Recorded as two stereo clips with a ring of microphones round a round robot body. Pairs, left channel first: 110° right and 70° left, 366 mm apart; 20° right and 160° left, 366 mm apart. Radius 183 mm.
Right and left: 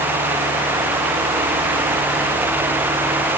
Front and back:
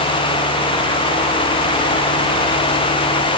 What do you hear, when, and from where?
Only background noise.